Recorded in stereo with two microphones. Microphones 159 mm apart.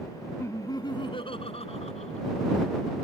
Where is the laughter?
15° left (ahead or behind); by 2.3 s 45° left (ahead or behind).